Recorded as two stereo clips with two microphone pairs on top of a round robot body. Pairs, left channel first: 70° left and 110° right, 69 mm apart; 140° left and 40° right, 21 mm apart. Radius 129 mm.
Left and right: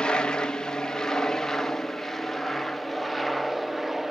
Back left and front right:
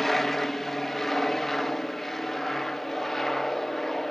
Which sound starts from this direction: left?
An aircraft, at 0.0 s.